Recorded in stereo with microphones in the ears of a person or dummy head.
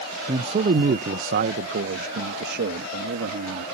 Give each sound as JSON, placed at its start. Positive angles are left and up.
{"t": 0.3, "sound": "a man speaking", "side_deg": -30}